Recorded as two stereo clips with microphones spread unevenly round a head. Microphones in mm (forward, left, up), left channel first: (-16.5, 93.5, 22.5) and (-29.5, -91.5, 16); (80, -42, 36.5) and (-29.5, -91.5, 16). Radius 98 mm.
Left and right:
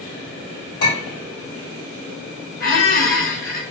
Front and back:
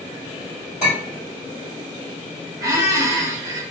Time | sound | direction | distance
0.8 | a clink | 75° left | 1.7 m
2.6 | a squeak | 130° left | 0.9 m